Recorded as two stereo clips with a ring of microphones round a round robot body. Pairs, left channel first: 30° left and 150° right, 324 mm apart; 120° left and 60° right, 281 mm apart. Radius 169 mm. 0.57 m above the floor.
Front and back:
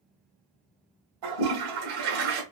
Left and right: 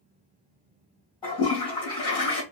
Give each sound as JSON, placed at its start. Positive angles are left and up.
{"t": 1.2, "sound": "a toilet flushing", "azimuth_deg": -165, "distance_m": 1.7}